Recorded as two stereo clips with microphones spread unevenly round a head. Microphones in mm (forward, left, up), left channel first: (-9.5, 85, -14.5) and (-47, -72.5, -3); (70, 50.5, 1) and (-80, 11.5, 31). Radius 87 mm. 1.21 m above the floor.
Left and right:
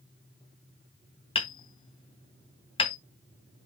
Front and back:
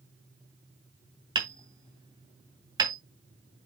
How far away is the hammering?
About 3 m.